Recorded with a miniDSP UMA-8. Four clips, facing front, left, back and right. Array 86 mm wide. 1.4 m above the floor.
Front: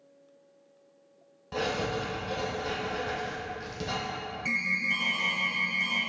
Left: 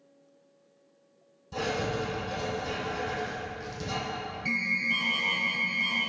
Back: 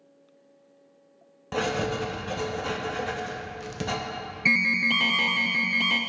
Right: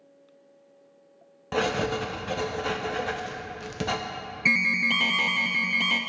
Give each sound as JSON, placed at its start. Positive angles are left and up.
{"t": 1.5, "sound": "writing", "azimuth_deg": -110, "distance_m": 0.7}
{"t": 4.5, "sound": "an alarm", "azimuth_deg": -130, "distance_m": 0.5}